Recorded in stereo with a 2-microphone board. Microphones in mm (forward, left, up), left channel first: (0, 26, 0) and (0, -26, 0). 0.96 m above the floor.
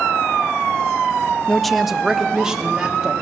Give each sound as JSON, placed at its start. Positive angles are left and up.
{"t": 1.5, "sound": "a woman speaking", "side_deg": 5, "distance_m": 0.6}